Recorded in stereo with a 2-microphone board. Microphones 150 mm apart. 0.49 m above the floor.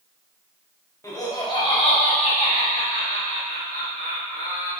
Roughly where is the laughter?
Left.